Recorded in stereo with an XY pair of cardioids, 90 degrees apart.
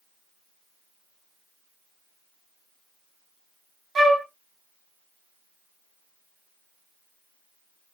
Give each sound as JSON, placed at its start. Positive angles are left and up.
{"t": 4.0, "sound": "a flute", "azimuth_deg": -50, "distance_m": 1.2}